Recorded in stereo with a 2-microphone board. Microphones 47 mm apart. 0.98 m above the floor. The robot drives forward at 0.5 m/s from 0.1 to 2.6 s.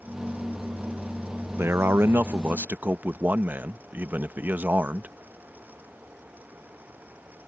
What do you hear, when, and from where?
1.6 s a man speaking: 55° right (ahead or behind); by 5.2 s 40° right (ahead or behind)